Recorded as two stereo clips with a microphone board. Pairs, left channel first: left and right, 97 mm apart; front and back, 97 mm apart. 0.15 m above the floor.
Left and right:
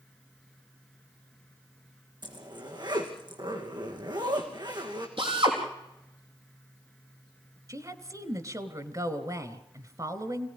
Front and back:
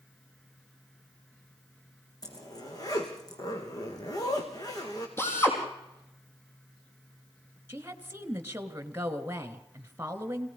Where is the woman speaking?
120° right, 1.7 m.